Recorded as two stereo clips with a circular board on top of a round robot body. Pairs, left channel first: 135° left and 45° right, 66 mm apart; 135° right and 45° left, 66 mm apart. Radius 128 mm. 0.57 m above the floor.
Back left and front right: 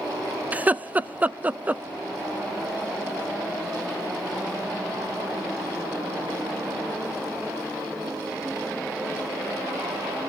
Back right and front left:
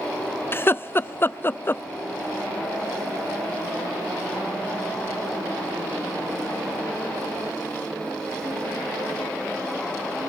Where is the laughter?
100° right, 0.7 m.